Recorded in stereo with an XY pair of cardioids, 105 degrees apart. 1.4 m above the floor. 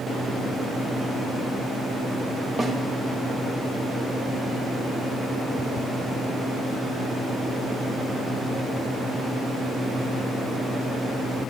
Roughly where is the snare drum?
Ahead.